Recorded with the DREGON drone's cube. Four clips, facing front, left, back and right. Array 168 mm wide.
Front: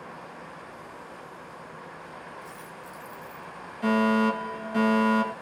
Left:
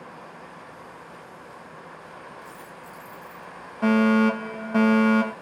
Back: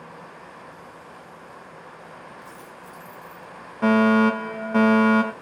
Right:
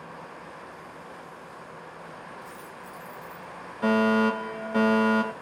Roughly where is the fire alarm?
Behind.